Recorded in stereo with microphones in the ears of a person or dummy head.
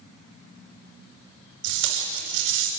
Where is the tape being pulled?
70° right (ahead or behind), 6.5 m.